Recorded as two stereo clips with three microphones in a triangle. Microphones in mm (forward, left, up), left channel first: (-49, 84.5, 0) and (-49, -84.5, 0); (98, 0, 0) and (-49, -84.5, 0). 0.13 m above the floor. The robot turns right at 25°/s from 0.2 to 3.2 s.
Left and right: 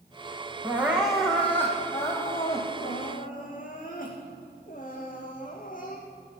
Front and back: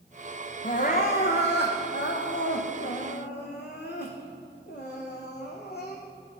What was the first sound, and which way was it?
Crying, 15° right.